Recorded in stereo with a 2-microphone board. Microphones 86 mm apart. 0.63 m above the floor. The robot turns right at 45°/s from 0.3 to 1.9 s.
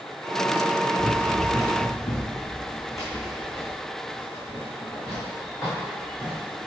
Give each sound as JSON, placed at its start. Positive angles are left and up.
{"t": 1.0, "sound": "running footsteps", "side_deg": 20, "distance_m": 1.3}